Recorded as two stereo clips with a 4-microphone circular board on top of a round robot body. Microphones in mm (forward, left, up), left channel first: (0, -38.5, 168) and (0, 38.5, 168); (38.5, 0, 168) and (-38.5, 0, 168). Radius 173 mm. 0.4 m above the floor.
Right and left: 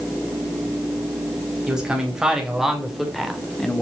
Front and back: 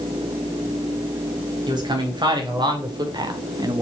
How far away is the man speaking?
About 4 m.